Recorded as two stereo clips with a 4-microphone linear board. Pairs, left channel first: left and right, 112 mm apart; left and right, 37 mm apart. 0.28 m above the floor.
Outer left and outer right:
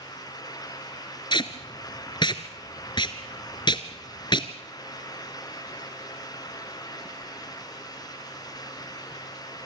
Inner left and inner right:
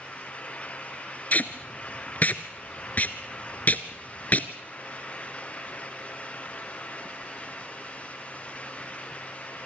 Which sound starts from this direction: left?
Tape being pulled, at 1.3 s.